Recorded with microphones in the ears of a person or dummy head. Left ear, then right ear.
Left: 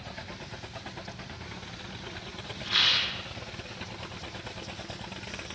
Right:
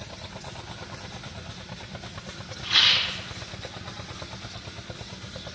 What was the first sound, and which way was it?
A rattle, centre (ahead or behind).